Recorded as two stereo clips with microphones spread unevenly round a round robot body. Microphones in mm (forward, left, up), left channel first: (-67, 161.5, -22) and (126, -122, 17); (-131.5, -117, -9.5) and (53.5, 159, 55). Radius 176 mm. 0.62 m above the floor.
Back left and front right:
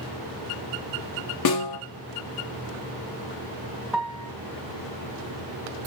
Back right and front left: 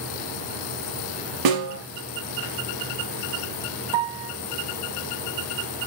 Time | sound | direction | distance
1.4 | a snare drum | 80° left | 3 m
3.9 | a piano | 30° left | 1.9 m